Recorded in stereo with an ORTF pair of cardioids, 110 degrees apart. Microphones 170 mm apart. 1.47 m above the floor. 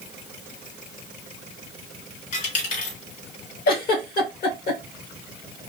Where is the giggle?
65° left, 1.9 m.